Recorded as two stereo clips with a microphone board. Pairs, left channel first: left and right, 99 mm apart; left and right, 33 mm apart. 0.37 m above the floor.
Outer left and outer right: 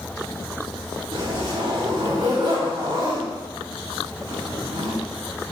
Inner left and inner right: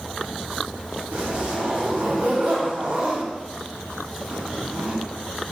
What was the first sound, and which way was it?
A zipper, 45° right (ahead or behind).